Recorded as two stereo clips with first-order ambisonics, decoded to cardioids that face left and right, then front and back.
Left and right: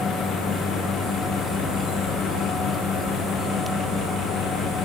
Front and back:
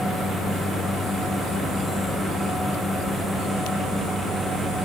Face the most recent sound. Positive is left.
No sound to turn to.